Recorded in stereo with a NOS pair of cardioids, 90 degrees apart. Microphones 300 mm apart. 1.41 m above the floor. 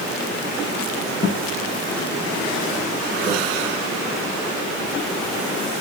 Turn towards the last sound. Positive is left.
turn(degrees=-15)